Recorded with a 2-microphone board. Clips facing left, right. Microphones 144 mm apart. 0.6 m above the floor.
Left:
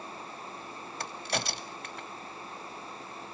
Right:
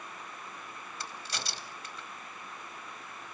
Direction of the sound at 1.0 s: 60° left (ahead or behind).